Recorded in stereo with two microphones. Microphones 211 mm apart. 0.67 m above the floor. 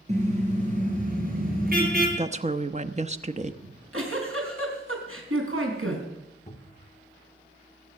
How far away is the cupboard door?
About 1.6 m.